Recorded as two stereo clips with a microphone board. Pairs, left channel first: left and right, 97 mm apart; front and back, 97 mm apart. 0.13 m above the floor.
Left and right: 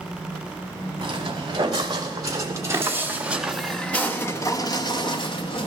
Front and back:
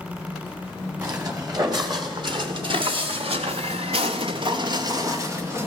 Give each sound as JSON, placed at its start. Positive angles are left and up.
{"t": 1.0, "sound": "footsteps", "azimuth_deg": -130, "distance_m": 2.5}